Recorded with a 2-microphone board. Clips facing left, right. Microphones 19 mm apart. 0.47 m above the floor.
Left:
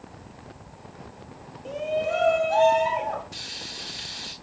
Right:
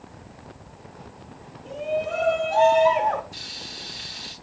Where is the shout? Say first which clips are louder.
Even; 40° left (ahead or behind), 2 m; by 3.2 s 40° right (ahead or behind), 1.2 m.